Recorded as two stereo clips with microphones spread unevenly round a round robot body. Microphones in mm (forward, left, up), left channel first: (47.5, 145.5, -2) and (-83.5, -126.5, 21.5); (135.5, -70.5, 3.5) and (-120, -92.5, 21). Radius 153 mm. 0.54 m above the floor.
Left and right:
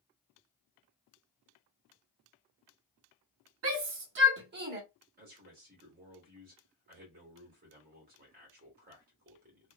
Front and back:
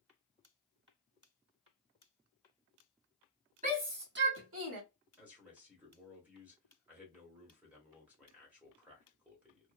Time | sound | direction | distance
3.6 | a shout | 125° right | 0.9 m
5.2 | a man speaking | 90° right | 1.4 m